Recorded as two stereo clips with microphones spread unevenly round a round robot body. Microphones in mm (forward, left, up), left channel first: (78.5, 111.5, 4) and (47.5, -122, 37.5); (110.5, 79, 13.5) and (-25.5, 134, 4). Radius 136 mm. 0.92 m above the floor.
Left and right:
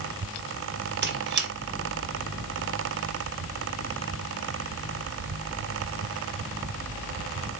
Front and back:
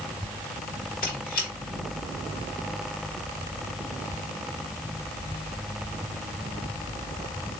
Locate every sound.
1.0 s a squeak: 60° right, 1.1 m